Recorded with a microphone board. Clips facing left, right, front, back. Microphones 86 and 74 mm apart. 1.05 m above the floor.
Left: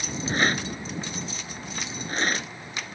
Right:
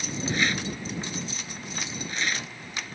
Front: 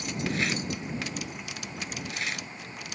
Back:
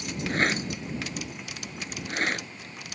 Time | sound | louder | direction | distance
0.3 | a rattle | left 3 dB, back 5 dB | 135° left | ?